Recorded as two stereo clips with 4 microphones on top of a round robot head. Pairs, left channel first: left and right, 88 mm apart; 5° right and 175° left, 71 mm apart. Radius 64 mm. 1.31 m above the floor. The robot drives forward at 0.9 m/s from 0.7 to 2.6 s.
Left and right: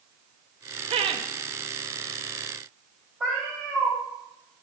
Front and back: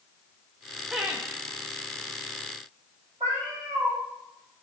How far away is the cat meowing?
About 3 m.